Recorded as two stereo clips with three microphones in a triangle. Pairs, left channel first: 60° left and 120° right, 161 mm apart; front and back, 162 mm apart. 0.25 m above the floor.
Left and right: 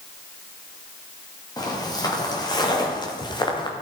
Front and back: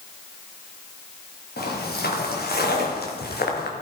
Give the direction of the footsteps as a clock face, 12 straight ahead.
12 o'clock.